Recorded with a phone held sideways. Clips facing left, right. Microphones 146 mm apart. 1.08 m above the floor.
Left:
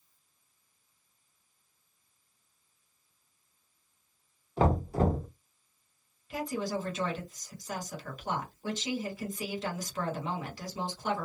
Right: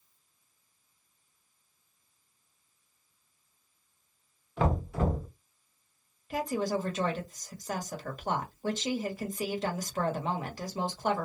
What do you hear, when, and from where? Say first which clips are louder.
4.6 s knocking: left 3 dB; 35° left (ahead or behind), 0.8 m
6.3 s a woman speaking: right 3 dB; 50° right (ahead or behind), 1.0 m